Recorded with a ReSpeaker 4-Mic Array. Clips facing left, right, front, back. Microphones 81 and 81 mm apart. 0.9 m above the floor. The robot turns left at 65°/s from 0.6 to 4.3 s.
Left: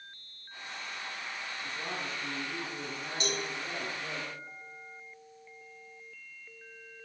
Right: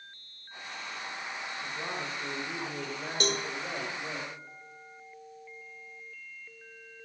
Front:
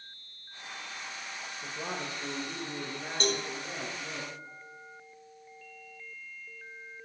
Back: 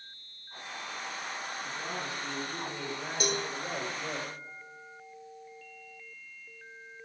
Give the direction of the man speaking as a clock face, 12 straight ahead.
12 o'clock.